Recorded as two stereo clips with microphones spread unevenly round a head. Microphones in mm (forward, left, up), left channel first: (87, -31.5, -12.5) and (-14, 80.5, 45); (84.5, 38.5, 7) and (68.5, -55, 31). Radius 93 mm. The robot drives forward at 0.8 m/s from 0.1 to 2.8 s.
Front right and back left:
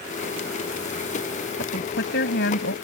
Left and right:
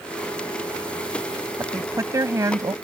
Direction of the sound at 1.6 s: 40° right.